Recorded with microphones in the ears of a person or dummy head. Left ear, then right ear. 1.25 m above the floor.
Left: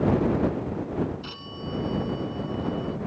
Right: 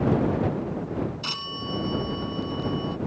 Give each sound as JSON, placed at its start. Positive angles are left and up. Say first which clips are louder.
{"t": 1.2, "sound": "a phone ringing", "louder": "right 7 dB", "side_deg": -60}